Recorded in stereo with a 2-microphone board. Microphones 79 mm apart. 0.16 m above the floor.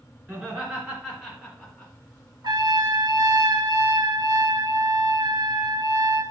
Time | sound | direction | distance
0.3 | laughter | 15° right (ahead or behind) | 2 m
2.4 | a trumpet | 65° right (ahead or behind) | 0.6 m